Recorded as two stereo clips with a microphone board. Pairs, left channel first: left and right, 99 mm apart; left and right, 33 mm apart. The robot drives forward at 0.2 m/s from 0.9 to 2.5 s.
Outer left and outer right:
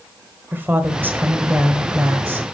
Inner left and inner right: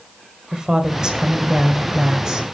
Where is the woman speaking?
20° right (ahead or behind), 1.3 m.